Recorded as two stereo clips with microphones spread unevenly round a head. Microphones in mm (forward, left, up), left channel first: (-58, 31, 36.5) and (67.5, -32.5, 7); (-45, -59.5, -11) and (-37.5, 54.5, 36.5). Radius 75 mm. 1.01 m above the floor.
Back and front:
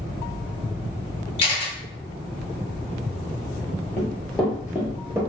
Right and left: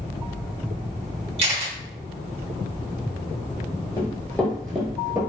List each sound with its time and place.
1.4 s a camera shutter: 105° left, 0.9 m
4.0 s running footsteps: 175° left, 1.0 m; by 5.2 s 55° left, 1.2 m